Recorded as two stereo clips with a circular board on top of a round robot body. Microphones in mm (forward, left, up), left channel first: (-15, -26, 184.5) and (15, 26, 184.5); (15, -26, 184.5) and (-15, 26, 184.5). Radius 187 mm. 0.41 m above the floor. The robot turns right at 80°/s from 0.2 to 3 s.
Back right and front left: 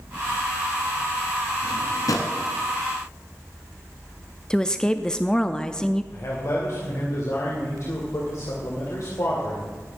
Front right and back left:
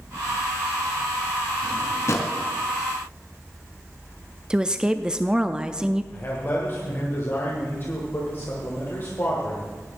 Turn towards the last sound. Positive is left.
turn(degrees=-105)